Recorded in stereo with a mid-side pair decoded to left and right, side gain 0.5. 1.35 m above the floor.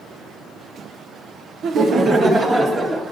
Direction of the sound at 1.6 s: 60° right.